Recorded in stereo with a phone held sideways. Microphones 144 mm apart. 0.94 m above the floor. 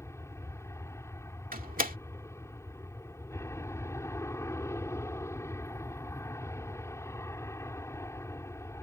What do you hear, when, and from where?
0.0 s an aircraft: 20° left (ahead or behind)
1.5 s a door slam: 80° right